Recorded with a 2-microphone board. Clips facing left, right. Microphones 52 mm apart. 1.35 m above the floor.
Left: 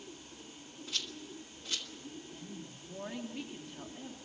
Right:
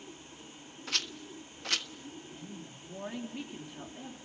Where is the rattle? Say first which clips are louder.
Right 4 dB; 70° right (ahead or behind), 1.2 m.